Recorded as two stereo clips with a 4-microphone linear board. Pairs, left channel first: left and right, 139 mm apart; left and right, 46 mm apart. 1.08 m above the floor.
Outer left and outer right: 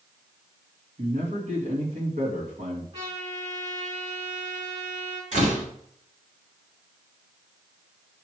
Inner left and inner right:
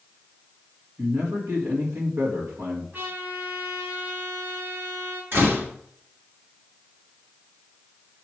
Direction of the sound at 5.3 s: 55° right (ahead or behind).